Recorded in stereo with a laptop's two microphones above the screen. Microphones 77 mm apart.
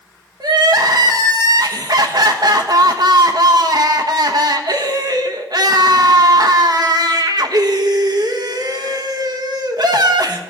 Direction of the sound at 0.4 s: 65° right (ahead or behind).